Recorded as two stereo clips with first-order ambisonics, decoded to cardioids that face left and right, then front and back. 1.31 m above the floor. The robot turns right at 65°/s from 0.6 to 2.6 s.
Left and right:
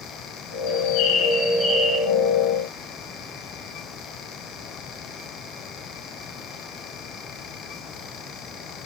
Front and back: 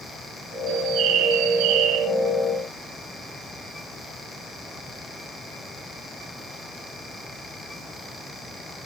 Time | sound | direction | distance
0.7 | a bird | 110° left | 9.5 m